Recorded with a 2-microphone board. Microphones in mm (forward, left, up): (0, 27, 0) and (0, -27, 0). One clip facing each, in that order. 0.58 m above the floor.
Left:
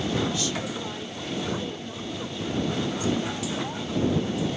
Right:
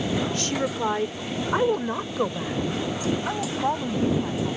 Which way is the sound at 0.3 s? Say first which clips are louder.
Right 3 dB; 45° right (ahead or behind).